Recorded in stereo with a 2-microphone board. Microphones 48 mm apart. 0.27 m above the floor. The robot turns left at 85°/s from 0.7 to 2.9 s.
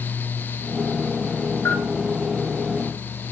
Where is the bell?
65° left (ahead or behind), 5 m; by 1.9 s 75° left (ahead or behind), 5 m.